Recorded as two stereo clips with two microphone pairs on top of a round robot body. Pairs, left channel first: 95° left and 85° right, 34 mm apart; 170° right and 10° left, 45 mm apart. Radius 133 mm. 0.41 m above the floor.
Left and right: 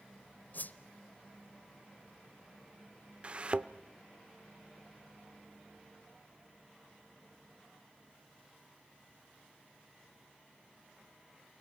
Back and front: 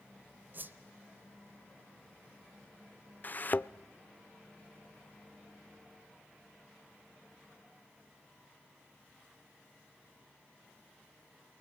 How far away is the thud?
About 0.7 m.